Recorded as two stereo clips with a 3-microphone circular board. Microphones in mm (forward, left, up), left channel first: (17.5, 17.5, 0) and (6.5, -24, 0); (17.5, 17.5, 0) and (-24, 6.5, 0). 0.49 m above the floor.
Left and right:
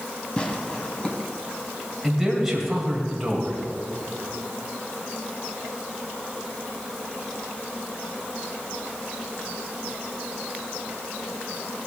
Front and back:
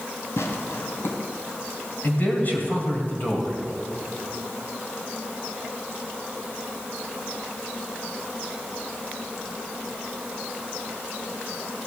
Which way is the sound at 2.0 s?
25° right.